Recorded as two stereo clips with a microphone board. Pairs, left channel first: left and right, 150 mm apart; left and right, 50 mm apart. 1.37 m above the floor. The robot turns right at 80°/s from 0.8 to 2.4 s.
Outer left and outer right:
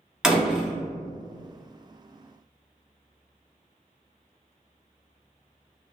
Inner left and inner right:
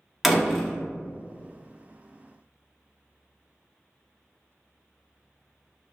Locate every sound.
0.2 s a door slam: 5° right (ahead or behind), 0.6 m